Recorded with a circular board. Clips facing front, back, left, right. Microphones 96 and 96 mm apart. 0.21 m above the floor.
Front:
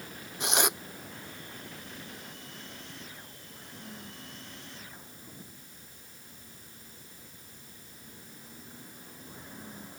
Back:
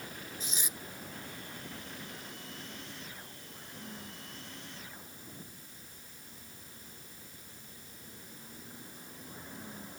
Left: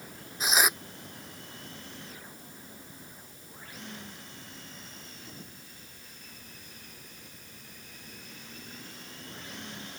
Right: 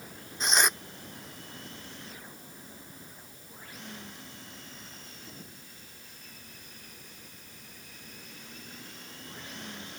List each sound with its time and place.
0.4 s tearing paper: 5° left